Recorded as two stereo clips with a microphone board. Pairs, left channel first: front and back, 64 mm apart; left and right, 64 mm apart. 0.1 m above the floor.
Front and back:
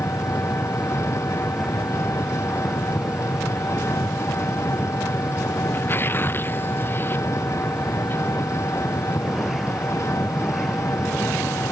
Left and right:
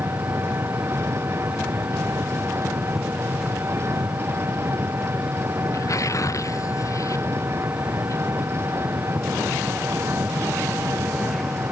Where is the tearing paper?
55° left.